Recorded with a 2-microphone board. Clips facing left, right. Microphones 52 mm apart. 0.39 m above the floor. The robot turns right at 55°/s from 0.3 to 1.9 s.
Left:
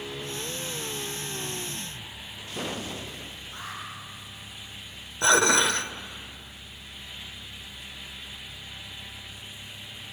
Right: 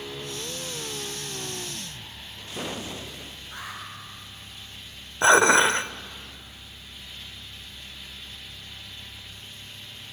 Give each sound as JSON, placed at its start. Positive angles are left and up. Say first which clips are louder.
{"t": 3.5, "sound": "an alarm", "louder": "right 1 dB", "side_deg": -80, "distance_m": 9.5}
{"t": 5.2, "sound": "dishes clattering", "louder": "right 4 dB", "side_deg": -30, "distance_m": 0.7}